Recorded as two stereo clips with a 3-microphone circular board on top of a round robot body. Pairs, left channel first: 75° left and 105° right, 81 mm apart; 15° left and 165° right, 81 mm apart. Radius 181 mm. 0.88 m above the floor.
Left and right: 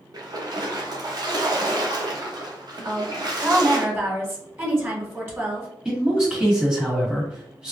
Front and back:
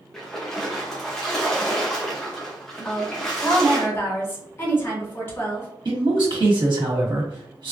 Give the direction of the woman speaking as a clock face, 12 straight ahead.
1 o'clock.